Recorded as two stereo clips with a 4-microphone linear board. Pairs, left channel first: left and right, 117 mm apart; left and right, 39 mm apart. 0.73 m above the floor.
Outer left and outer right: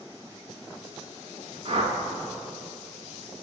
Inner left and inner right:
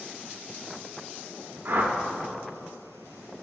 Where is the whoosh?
55° right (ahead or behind), 0.9 m.